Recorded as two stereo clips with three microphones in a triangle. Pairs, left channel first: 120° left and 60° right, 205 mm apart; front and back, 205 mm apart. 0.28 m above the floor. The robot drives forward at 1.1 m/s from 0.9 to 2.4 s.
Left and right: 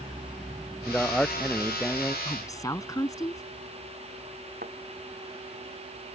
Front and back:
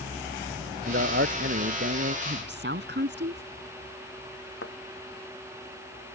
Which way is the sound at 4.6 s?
15° right.